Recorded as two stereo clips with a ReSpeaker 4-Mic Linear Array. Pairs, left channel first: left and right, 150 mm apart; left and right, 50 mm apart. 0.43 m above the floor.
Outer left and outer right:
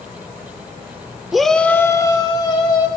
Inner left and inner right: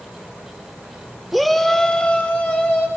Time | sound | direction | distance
1.3 | a shout | centre (ahead or behind) | 0.9 m